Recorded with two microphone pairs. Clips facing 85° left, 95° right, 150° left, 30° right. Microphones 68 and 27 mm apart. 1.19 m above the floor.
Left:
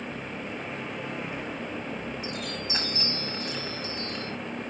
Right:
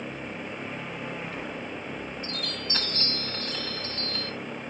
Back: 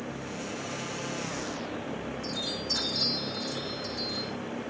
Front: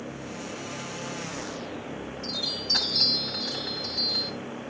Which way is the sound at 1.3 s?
10° left.